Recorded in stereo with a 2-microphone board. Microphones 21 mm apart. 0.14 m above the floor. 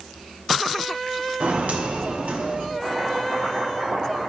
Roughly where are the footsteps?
Right.